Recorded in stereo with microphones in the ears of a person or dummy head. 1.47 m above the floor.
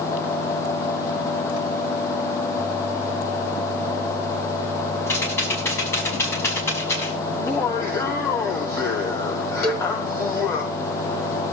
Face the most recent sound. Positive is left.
turn(degrees=40)  # may be behind; listen again after turning